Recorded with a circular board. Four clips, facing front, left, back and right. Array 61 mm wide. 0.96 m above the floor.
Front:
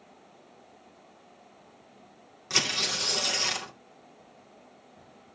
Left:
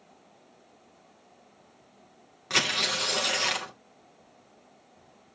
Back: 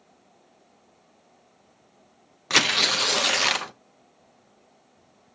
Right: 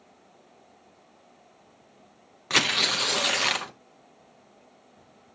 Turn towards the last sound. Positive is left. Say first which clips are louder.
# right 3 dB, back 8 dB
turn(degrees=-160)